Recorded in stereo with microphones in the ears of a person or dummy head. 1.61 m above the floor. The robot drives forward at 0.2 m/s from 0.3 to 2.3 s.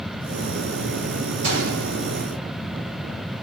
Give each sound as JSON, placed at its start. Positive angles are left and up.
{"t": 1.4, "sound": "a gunshot", "side_deg": -65, "distance_m": 0.7}